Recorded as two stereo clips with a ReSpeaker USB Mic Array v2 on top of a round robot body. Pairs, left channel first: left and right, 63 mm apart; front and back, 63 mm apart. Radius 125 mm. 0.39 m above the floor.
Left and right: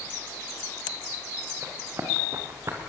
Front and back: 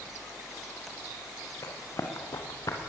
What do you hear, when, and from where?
1.6 s running footsteps: 40° right, 4.5 m